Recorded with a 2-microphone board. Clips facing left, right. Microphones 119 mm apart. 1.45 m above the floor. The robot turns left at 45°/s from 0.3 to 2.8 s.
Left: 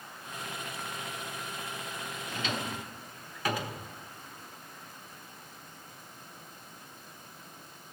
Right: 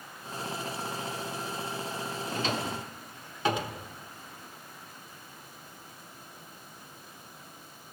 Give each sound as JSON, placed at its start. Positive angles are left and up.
{"t": 2.3, "sound": "a drawer", "side_deg": -40, "distance_m": 0.9}